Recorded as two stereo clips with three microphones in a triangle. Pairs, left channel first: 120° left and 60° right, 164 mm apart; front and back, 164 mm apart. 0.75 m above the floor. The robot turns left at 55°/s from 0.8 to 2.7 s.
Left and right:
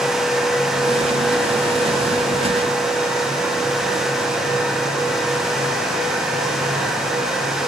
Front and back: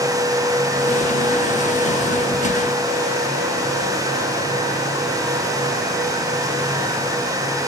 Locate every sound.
Only background noise.